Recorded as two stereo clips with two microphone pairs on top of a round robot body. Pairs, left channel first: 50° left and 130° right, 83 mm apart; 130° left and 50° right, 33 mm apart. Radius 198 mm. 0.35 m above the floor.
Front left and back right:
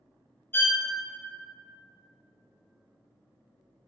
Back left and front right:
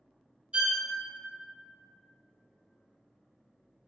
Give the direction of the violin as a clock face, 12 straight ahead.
12 o'clock.